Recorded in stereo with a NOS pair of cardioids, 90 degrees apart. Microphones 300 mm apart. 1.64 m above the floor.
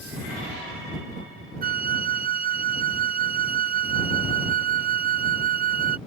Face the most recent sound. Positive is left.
turn(degrees=-30)